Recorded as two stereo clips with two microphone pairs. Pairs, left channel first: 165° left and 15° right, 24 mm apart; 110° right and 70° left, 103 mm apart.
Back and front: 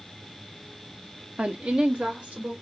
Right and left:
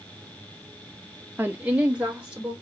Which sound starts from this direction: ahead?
A woman speaking, at 1.4 s.